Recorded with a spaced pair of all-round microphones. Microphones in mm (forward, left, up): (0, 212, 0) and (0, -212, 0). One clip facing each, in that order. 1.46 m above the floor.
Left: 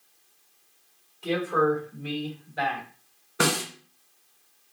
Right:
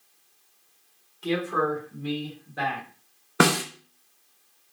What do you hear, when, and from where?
1.2 s a man speaking: 30° right (ahead or behind), 0.9 m; by 2.9 s 65° right (ahead or behind), 1.5 m
3.4 s a snare drum: 75° right (ahead or behind), 0.6 m